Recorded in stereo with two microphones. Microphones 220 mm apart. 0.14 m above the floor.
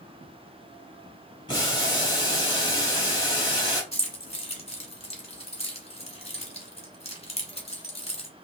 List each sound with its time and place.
1.5 s boiling: 20° left (ahead or behind), 3.5 m
3.9 s keys jangling: 25° left (ahead or behind), 1.2 m